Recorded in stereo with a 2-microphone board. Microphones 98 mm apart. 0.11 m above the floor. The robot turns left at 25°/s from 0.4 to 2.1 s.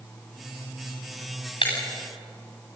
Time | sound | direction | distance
1.6 | breaking glass | 65° left (ahead or behind) | 8 m